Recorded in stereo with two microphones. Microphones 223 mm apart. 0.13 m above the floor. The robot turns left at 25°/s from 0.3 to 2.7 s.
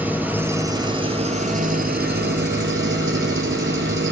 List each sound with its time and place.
0.0 s an engine running: 10° right, 0.8 m; by 4.1 s 70° right, 0.8 m